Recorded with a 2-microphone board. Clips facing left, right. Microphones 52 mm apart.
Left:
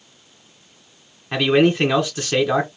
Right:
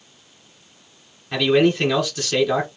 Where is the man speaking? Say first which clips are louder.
Left 1 dB; 25° left (ahead or behind), 1.8 m.